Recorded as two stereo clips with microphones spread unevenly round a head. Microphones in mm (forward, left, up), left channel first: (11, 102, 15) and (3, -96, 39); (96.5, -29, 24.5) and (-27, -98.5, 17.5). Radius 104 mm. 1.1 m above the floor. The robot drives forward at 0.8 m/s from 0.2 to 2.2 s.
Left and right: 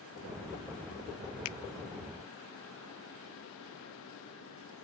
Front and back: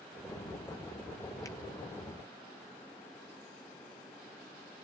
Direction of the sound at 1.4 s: 105° left.